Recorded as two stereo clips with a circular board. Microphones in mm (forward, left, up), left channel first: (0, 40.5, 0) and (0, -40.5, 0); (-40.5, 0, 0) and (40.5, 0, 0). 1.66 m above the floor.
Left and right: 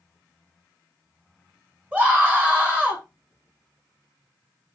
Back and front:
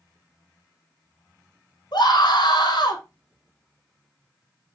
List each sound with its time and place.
1.9 s a scream: 155° right, 5.5 m